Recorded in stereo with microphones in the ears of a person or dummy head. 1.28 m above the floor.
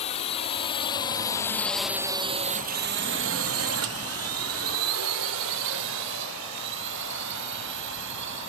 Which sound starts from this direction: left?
A drone, at 0.0 s.